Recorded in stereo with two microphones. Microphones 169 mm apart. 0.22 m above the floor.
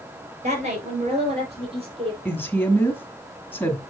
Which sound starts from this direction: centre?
A woman speaking, at 2.2 s.